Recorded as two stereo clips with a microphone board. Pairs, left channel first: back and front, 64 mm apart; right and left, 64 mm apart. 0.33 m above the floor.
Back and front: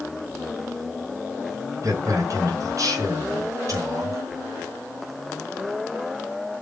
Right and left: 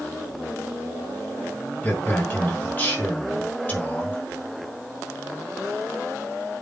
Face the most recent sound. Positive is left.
turn(degrees=-30)